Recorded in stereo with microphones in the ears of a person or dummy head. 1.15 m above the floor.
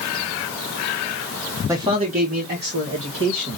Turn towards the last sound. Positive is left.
turn(degrees=-60)  # may be behind; listen again after turning